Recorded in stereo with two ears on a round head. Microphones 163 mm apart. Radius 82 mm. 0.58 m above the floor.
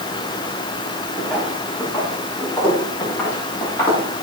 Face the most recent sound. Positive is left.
turn(degrees=15)  # may be behind; listen again after turning